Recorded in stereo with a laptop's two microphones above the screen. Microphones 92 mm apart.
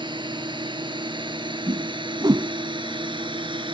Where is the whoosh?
45° right (ahead or behind).